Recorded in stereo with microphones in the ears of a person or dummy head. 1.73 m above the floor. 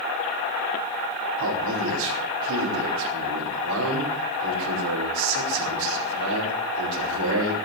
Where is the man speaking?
80° right, 5 m.